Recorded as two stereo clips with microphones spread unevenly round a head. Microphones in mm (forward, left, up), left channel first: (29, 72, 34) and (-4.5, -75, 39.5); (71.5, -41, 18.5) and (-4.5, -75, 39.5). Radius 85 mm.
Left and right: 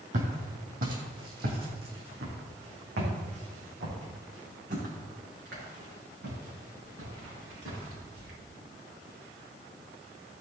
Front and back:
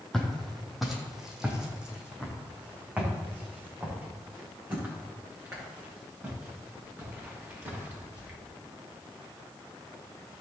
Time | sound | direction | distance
0.1 | footsteps | 65° right | 3 m